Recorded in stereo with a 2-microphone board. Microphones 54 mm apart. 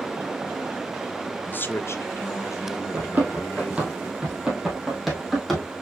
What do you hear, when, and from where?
1.4 s a man speaking: 25° left (ahead or behind), 0.5 m; by 3.9 s 65° left (ahead or behind), 1.5 m
2.9 s running footsteps: 30° right (ahead or behind), 2.0 m; by 5.7 s 10° left (ahead or behind), 2 m